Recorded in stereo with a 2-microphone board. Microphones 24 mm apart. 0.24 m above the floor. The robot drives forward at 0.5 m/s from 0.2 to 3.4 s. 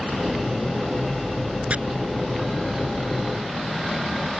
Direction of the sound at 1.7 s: 60° right (ahead or behind).